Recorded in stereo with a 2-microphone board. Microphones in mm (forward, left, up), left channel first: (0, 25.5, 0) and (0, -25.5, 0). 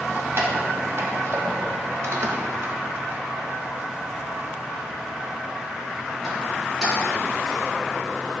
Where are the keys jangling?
45° right (ahead or behind), 1.7 m; by 7.6 s 5° right (ahead or behind), 3.5 m.